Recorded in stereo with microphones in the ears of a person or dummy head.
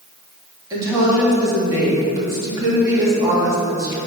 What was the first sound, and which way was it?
A woman speaking, 20° right (ahead or behind).